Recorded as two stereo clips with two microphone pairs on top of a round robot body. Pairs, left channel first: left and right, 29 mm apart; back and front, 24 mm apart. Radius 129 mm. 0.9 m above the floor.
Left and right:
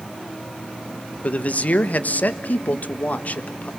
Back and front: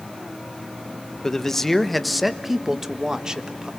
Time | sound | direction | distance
1.2 | a man speaking | 120° left | 1.5 m